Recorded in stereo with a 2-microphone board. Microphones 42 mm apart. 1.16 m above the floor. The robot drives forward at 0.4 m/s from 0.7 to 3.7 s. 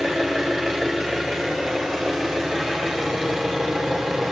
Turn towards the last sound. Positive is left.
turn(degrees=0)  # may be behind; listen again after turning